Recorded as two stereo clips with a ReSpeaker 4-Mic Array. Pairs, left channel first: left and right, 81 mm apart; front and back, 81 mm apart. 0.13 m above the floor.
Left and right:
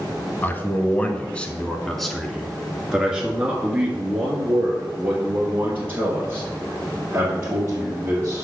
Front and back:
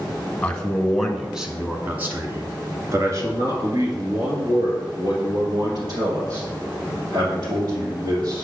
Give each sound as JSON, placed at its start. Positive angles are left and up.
{"t": 0.4, "sound": "a man speaking", "azimuth_deg": 60, "distance_m": 1.2}